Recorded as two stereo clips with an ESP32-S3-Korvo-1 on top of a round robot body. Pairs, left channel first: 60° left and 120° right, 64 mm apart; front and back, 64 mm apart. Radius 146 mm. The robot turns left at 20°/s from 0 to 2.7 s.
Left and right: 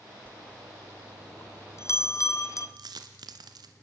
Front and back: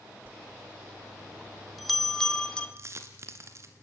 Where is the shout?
No shout in this recording.